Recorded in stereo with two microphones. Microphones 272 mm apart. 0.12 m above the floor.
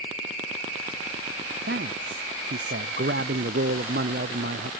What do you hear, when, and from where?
1.7 s a man speaking: 45° right (ahead or behind)